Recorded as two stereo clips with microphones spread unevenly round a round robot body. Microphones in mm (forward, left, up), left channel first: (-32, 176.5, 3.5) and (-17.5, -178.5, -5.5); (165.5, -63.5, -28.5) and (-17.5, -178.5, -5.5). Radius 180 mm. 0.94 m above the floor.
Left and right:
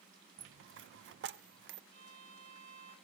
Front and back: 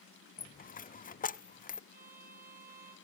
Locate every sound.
0.4 s a dropped coin: 25° right, 0.6 m
1.9 s a violin: 100° right, 7 m